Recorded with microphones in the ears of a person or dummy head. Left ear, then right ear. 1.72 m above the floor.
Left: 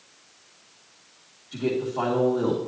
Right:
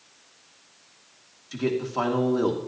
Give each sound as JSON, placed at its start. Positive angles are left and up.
{"t": 1.5, "sound": "a man speaking", "side_deg": -70, "distance_m": 2.0}